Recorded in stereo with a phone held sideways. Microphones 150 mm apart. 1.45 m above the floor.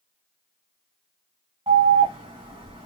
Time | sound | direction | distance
1.7 | an alarm | 40° right (ahead or behind) | 1.6 m